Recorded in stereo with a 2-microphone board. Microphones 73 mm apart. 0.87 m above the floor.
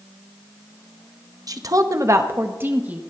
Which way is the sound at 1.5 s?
55° right (ahead or behind).